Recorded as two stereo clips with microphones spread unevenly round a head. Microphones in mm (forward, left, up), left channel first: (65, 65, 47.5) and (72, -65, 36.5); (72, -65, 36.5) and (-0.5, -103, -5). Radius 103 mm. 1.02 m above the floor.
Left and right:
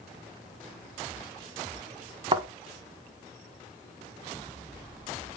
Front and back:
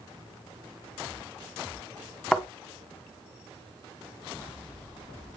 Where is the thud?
40° right, 1.5 m.